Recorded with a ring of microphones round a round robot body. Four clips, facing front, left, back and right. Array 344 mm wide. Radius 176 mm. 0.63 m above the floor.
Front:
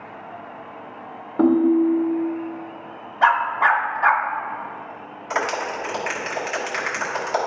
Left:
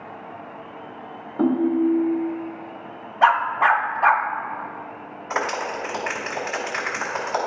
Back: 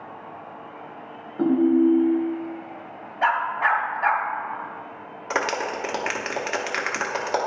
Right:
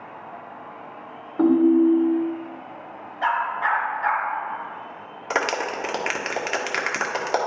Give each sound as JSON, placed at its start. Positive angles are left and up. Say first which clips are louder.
{"t": 1.4, "sound": "a ringtone", "louder": "right 3 dB, front 2 dB", "azimuth_deg": 0, "distance_m": 0.6}
{"t": 3.2, "sound": "a dog barking", "louder": "left 6 dB, front 5 dB", "azimuth_deg": 70, "distance_m": 0.6}
{"t": 5.3, "sound": "a clap", "louder": "right 1 dB, front 1 dB", "azimuth_deg": -115, "distance_m": 1.1}